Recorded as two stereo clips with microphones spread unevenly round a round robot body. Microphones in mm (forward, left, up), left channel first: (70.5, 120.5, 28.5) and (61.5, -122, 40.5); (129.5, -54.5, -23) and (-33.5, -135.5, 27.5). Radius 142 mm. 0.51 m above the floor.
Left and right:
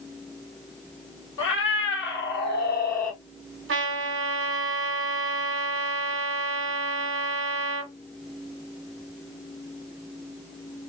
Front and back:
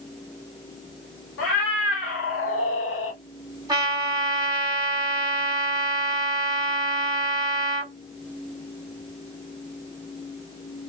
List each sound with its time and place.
1.4 s a cat meowing: 50° left, 2.5 m; by 3.2 s 30° left, 1.8 m
3.7 s a trumpet: 75° right, 1.6 m